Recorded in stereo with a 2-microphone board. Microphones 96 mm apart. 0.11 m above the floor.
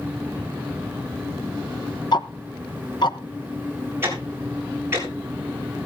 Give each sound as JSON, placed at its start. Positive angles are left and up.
{"t": 2.1, "sound": "ticking", "side_deg": 50, "distance_m": 0.9}
{"t": 4.0, "sound": "ticking", "side_deg": -25, "distance_m": 7.0}